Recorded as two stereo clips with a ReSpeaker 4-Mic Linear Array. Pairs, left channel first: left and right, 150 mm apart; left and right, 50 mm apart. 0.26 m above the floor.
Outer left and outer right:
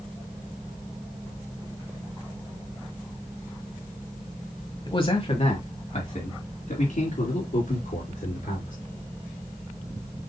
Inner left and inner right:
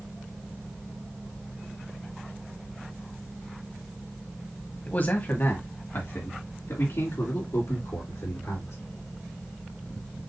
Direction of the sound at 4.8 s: 35° left (ahead or behind).